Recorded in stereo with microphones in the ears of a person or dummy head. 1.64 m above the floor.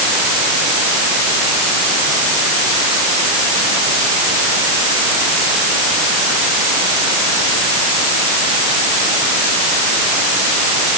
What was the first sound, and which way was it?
Only background noise.